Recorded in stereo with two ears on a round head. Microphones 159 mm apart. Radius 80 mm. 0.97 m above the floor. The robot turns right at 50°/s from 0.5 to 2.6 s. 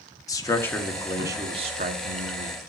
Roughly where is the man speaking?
Behind.